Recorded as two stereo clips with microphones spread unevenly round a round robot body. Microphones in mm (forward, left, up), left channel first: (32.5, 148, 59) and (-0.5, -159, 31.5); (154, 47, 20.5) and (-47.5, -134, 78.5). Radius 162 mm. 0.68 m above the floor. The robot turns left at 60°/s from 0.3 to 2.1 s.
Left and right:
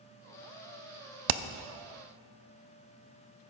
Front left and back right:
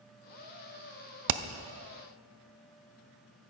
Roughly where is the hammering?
Behind right.